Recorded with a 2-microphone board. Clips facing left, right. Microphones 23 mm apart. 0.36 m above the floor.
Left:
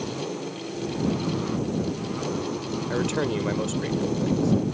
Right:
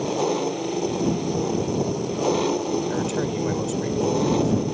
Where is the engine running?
50° right (ahead or behind).